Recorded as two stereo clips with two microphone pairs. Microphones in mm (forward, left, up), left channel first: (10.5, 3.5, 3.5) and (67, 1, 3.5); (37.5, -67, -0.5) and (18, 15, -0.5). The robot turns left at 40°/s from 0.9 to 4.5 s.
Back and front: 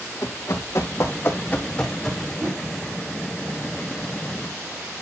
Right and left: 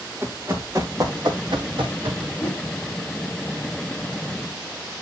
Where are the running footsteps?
165° left, 2.5 m; by 2.3 s 80° left, 2.5 m.